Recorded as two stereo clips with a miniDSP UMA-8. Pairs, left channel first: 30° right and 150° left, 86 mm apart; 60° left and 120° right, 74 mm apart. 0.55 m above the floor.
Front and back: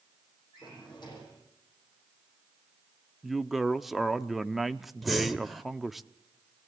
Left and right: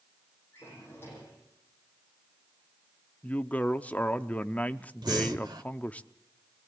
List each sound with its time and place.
0.5 s a drawer: straight ahead, 9.5 m
3.2 s a woman speaking: 65° left, 0.6 m
5.0 s breathing: 120° right, 1.3 m